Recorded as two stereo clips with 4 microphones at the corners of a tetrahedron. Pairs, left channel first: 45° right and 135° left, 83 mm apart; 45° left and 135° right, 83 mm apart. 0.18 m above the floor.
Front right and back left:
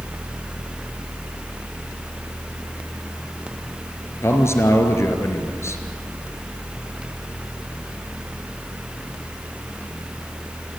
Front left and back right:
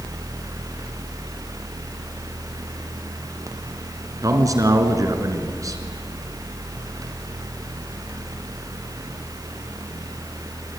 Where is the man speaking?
95° right, 3.5 m.